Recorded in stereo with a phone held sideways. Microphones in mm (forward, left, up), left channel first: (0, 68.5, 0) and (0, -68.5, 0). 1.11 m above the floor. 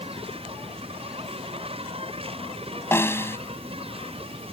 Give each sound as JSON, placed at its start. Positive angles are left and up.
{"t": 0.0, "sound": "an insect", "side_deg": -45}
{"t": 2.9, "sound": "a snare drum", "side_deg": 15}